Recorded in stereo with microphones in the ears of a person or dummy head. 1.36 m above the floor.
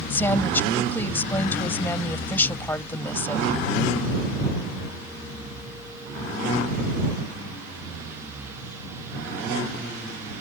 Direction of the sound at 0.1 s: 15° left (ahead or behind).